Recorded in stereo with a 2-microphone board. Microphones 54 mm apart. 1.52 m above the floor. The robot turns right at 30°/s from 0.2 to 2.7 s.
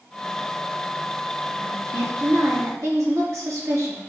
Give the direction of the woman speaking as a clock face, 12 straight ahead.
3 o'clock.